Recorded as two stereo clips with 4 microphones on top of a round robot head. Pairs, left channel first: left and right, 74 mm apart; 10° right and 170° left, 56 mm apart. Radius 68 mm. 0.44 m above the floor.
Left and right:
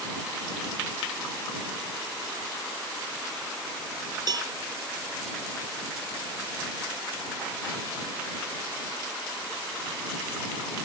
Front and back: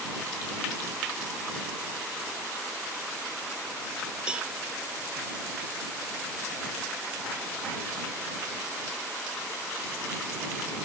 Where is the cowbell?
115° right.